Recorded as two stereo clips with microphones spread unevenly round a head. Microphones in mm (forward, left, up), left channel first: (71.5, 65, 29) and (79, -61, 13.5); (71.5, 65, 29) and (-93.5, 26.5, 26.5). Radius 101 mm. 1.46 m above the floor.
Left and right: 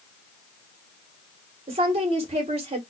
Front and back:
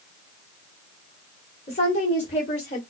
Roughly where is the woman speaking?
Ahead right.